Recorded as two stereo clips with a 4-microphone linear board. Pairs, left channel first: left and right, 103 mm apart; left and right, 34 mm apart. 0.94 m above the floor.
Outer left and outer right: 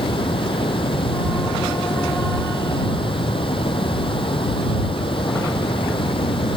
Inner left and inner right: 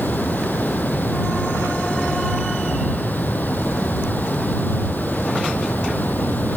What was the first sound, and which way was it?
Running water, 60° left (ahead or behind).